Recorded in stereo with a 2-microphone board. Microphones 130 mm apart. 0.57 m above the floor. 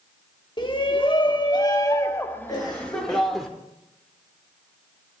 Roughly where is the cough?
Left.